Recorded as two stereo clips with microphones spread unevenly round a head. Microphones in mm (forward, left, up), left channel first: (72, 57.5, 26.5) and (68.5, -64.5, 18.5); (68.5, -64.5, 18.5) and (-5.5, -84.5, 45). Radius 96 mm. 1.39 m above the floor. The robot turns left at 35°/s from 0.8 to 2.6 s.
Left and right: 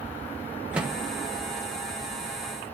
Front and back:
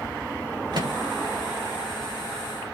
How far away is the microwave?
About 1.3 m.